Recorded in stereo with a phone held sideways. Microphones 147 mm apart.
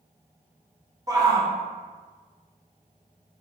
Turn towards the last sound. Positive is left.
turn(degrees=-25)  # may be behind; listen again after turning